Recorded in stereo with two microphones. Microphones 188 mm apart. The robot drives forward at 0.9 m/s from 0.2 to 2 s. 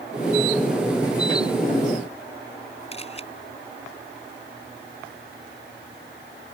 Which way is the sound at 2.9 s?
30° left (ahead or behind).